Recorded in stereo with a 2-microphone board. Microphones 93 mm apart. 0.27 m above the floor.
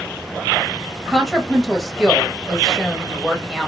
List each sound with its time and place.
1.1 s a woman speaking: centre (ahead or behind), 1.0 m